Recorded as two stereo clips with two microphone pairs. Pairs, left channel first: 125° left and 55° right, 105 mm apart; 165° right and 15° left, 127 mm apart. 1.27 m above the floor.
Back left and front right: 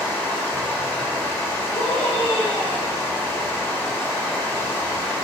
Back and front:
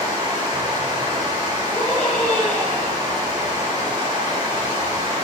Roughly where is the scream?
Behind left.